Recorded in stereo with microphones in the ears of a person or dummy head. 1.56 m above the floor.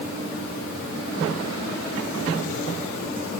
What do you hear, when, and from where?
Only background noise.